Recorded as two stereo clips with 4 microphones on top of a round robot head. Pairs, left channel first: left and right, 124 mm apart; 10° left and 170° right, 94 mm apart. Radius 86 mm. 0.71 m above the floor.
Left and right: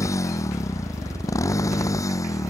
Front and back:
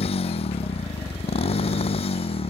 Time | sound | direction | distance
0.0 | a motorcycle | 25° left | ?